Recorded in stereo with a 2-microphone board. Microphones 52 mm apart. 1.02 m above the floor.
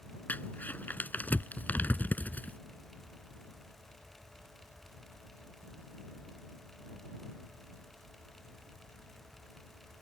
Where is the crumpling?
35° left (ahead or behind).